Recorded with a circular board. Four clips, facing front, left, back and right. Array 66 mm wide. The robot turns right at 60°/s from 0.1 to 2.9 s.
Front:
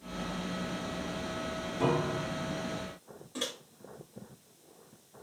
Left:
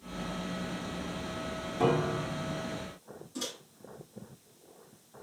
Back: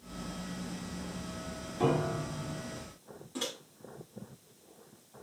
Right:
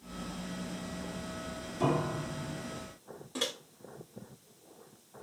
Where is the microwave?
85° right, 1.1 m.